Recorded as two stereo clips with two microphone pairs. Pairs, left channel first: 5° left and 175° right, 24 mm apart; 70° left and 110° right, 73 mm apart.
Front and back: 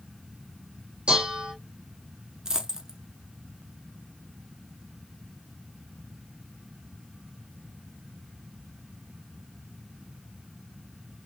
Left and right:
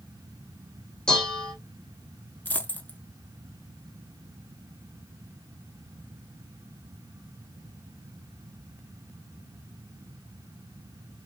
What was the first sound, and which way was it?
Dishes clattering, 145° left.